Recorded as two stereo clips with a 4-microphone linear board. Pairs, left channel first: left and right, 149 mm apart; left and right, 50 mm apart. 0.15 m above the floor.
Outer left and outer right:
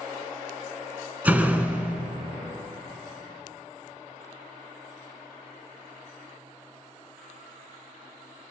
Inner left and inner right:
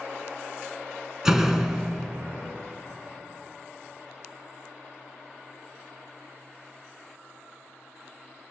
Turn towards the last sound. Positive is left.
turn(degrees=-10)  # may be behind; listen again after turning